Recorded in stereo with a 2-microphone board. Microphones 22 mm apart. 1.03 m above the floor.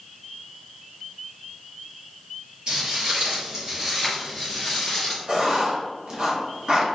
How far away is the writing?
About 0.7 m.